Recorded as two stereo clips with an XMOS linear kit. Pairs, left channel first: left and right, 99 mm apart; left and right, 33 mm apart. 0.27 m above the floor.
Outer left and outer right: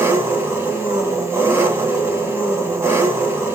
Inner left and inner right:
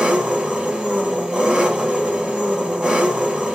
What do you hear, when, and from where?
0.0 s an engine running: 25° right (ahead or behind), 0.9 m